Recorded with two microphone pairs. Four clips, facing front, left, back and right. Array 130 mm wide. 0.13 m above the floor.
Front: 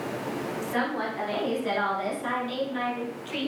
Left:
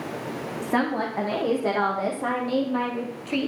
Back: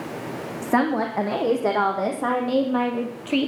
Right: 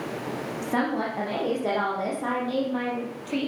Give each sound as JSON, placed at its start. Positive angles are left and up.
{"t": 0.6, "sound": "a woman speaking", "azimuth_deg": 170, "distance_m": 6.0}